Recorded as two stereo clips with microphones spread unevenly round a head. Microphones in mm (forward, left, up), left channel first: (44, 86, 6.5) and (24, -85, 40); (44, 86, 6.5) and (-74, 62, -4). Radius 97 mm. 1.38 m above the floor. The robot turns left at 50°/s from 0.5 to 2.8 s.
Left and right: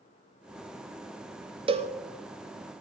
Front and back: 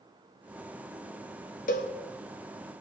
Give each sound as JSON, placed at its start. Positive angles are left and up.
{"t": 1.7, "sound": "a cowbell", "azimuth_deg": -30, "distance_m": 1.0}